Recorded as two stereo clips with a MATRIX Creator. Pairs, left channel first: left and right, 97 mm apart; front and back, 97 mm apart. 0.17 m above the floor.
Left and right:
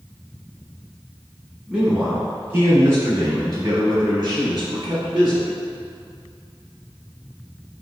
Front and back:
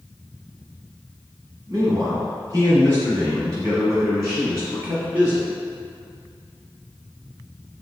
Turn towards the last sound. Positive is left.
turn(degrees=-120)